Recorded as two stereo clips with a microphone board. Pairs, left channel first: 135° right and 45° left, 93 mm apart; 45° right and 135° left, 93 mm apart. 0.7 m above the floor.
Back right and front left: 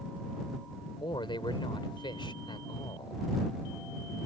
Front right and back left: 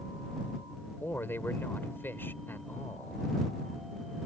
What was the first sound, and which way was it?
A man speaking, 110° right.